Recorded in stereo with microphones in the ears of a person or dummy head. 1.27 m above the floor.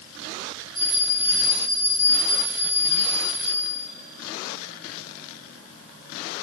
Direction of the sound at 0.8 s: 5° right (ahead or behind).